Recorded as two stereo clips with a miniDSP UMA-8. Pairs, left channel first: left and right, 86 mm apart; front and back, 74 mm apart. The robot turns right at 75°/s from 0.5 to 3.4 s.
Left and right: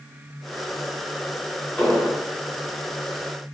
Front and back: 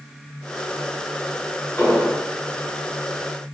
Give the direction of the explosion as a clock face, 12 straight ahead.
11 o'clock.